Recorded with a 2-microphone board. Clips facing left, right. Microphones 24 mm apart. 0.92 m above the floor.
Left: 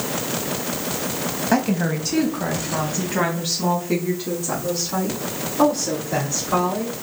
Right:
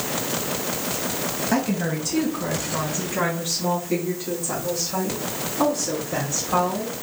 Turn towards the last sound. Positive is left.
turn(degrees=85)